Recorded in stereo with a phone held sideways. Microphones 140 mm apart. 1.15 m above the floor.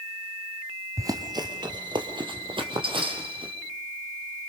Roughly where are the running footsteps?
Right.